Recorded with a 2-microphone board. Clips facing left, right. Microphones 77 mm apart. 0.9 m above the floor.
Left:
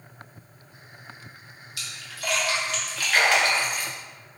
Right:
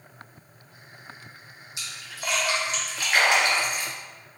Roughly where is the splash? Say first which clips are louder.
Left 1 dB; right.